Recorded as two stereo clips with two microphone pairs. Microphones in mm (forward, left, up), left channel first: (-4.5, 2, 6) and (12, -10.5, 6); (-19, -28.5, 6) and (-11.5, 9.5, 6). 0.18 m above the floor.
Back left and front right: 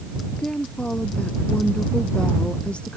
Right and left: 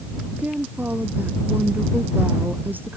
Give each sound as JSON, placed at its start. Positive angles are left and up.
{"t": 0.3, "sound": "a woman speaking", "azimuth_deg": 110}